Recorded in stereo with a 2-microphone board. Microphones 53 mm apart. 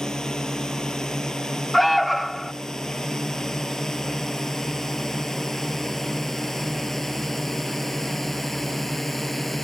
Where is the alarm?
Centre (ahead or behind).